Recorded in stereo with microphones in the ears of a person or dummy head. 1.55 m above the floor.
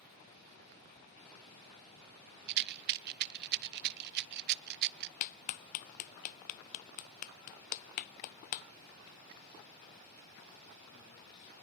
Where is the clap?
50° left (ahead or behind), 0.6 m.